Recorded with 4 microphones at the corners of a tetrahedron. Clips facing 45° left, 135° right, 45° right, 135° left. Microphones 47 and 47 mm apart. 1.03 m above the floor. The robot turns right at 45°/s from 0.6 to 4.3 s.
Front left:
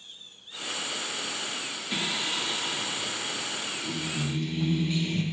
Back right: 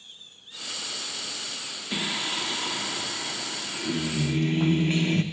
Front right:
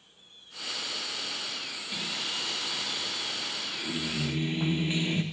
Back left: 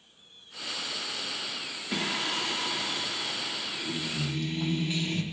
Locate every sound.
1.9 s singing: 150° left, 0.6 m; by 5.2 s 105° right, 0.6 m